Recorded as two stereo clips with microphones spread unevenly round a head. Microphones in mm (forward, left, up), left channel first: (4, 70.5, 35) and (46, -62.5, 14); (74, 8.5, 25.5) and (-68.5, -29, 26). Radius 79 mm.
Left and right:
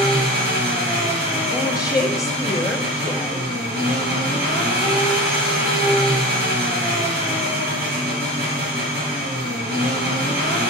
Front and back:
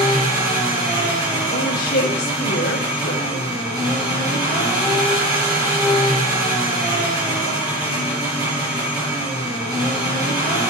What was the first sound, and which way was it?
An engine running, 100° right.